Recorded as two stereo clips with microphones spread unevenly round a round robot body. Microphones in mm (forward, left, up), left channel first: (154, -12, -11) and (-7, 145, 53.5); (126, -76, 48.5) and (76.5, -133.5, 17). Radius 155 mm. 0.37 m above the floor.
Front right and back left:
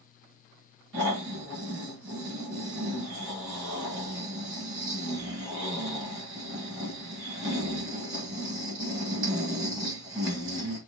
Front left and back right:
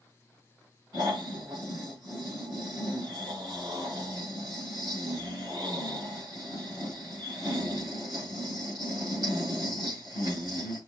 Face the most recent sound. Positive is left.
turn(degrees=-170)